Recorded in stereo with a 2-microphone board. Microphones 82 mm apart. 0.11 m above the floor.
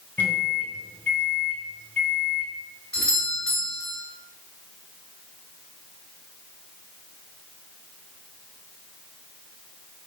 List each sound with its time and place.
0.2 s a microwave: 20° left (ahead or behind), 1.1 m
2.9 s a doorbell: 10° left (ahead or behind), 2 m